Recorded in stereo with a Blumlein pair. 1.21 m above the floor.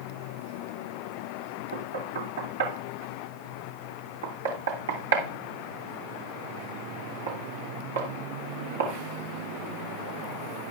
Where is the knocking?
65° right, 3 m.